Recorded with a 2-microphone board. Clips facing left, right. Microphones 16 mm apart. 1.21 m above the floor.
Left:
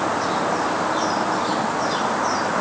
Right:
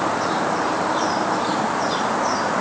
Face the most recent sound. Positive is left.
No sound to turn to.